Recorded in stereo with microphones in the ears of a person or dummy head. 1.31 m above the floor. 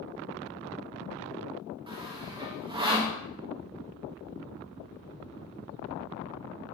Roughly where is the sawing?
Right.